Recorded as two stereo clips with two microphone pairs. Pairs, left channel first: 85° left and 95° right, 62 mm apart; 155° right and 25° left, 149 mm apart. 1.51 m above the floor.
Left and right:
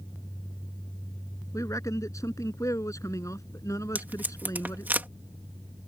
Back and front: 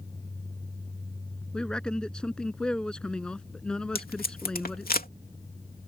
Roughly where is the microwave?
I don't hear a microwave.